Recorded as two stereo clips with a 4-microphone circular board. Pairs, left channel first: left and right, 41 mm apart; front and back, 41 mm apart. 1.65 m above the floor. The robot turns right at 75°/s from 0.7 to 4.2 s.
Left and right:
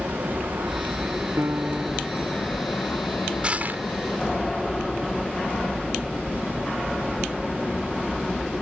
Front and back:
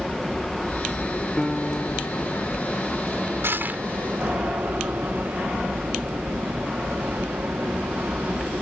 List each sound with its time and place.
0.0 s an aircraft: 85° right; by 8.6 s 175° left
1.4 s a piano: 95° right; by 2.5 s 15° right
3.4 s crushing: 155° right; by 3.8 s 125° right